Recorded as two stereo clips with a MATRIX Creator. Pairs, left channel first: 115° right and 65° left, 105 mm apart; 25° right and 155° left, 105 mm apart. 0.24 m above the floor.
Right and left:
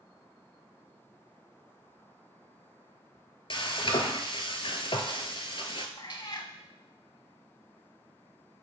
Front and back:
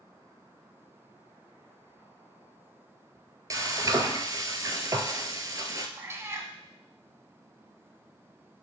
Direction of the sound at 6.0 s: 145° right.